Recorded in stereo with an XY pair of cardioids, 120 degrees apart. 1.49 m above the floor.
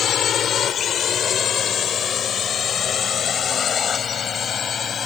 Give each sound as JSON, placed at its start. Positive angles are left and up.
{"t": 0.0, "sound": "a drone", "azimuth_deg": 50}